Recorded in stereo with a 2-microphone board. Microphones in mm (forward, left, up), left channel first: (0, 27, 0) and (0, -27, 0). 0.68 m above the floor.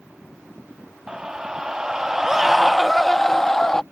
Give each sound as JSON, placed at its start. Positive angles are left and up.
{"t": 1.1, "sound": "a scream", "side_deg": -15}